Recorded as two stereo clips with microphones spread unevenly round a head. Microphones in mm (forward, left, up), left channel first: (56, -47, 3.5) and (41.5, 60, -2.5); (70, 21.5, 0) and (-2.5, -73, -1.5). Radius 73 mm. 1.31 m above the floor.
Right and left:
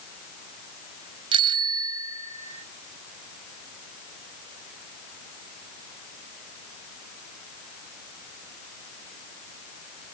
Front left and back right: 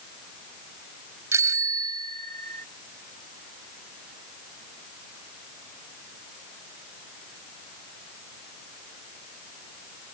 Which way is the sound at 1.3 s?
160° left.